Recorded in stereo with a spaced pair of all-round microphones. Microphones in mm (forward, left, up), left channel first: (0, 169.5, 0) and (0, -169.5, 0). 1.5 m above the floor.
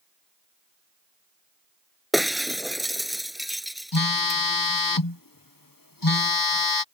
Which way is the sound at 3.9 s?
75° left (ahead or behind).